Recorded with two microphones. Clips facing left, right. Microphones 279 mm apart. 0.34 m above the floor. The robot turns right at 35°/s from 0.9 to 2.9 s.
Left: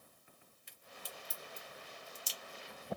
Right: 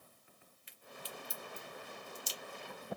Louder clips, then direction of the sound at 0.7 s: Right 4 dB; 45° left (ahead or behind).